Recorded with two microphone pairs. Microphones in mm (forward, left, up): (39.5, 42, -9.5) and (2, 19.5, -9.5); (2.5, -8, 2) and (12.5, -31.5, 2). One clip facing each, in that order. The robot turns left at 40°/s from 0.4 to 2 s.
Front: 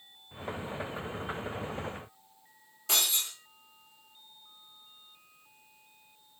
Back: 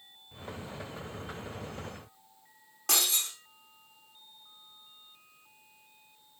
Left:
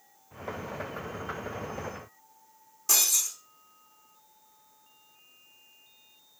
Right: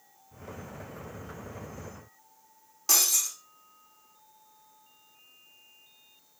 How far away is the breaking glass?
About 3 m.